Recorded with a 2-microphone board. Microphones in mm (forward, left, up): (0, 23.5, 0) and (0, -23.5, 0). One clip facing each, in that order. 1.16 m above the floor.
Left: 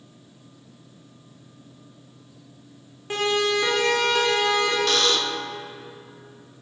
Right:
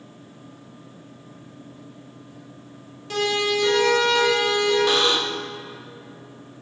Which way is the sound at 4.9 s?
15° right (ahead or behind).